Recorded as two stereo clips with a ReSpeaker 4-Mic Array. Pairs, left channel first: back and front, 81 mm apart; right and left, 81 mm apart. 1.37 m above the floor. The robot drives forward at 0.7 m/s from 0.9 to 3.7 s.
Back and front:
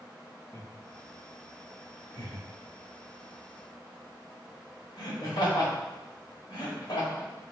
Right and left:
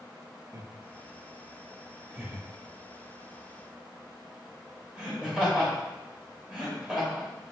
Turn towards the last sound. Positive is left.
turn(degrees=165)